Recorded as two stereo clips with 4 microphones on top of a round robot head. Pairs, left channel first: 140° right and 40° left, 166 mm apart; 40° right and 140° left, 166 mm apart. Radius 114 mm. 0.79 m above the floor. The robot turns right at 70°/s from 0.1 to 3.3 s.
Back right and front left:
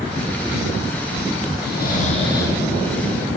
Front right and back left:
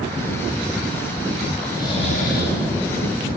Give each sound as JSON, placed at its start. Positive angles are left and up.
{"t": 1.6, "sound": "snoring", "azimuth_deg": -125, "distance_m": 7.0}